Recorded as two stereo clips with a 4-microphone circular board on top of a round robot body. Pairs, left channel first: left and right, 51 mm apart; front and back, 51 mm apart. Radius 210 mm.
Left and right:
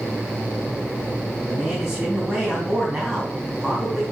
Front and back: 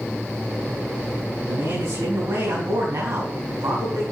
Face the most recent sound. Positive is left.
turn(degrees=-175)